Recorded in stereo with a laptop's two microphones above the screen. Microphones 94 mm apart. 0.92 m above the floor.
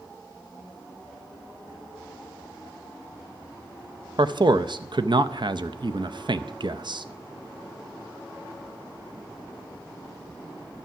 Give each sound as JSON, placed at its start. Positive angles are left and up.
{"t": 4.2, "sound": "a man speaking", "side_deg": -60, "distance_m": 0.5}